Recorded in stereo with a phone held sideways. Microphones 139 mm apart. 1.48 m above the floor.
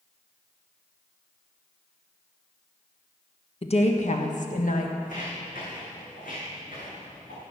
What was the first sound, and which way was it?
A woman speaking, 45° left (ahead or behind).